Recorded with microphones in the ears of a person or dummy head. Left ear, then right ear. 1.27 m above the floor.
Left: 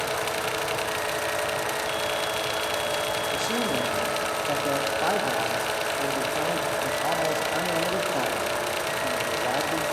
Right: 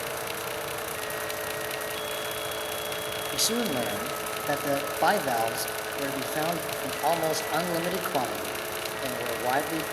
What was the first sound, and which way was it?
A man speaking, 50° right (ahead or behind).